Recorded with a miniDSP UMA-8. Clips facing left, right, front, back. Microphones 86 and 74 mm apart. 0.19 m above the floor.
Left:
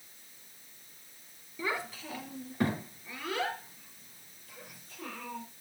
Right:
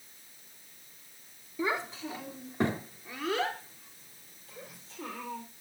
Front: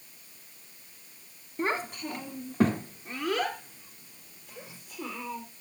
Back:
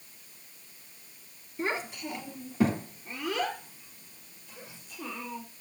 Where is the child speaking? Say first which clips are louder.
Right 3 dB, front 2 dB; 30° right, 1.4 m.